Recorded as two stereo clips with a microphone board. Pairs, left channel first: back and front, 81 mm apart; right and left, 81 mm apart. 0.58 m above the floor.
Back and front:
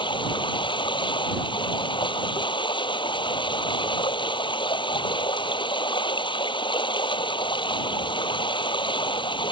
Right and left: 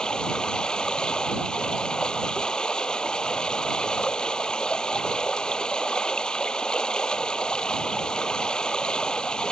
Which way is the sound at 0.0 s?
170° right.